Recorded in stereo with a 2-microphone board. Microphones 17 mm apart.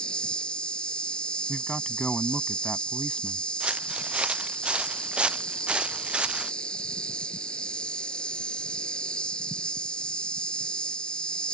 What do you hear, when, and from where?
0.0 s an insect: 70° left (ahead or behind)
1.5 s a man speaking: 55° left (ahead or behind)
3.6 s footsteps: 80° right; by 6.5 s 70° right (ahead or behind)